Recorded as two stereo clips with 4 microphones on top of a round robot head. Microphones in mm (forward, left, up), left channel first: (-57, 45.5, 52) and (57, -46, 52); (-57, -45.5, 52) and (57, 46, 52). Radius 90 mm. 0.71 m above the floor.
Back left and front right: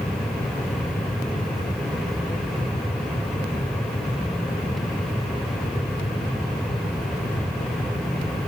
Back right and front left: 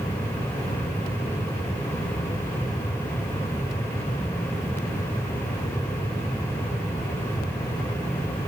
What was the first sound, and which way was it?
Only background noise.